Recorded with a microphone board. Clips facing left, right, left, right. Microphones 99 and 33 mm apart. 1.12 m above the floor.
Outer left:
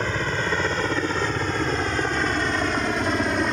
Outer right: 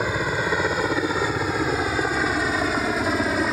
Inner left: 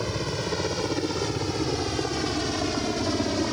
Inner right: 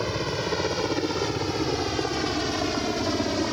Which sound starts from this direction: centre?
A helicopter, at 0.0 s.